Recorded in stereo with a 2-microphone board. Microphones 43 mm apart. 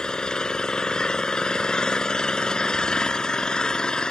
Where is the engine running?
20° left (ahead or behind).